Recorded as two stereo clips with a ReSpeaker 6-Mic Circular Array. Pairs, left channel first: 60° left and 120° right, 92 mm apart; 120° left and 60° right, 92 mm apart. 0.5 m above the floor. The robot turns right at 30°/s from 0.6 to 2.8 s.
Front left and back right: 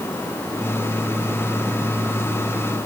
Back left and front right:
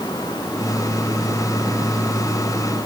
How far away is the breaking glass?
I don't hear breaking glass.